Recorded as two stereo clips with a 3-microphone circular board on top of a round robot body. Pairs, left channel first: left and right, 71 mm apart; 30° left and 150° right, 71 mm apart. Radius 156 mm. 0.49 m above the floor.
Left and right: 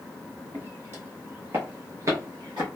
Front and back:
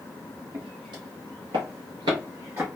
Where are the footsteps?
155° right, 1.6 m; by 2.7 s 85° right, 0.5 m.